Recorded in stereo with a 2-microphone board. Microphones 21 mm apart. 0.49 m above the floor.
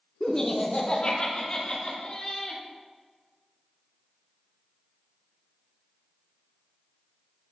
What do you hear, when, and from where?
0.2 s laughter: 20° left (ahead or behind), 0.7 m; by 2.6 s 50° left (ahead or behind), 2 m